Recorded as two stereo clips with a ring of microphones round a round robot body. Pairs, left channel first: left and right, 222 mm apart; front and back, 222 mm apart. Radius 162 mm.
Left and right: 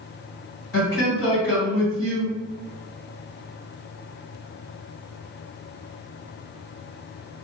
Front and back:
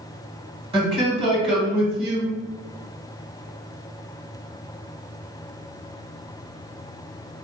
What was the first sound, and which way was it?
A man speaking, 115° left.